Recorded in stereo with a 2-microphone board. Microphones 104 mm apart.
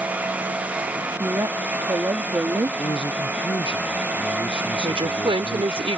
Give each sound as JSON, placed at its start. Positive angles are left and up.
{"t": 1.1, "sound": "a woman speaking", "side_deg": -35}
{"t": 2.8, "sound": "a man speaking", "side_deg": 55}
{"t": 4.8, "sound": "a woman speaking", "side_deg": -65}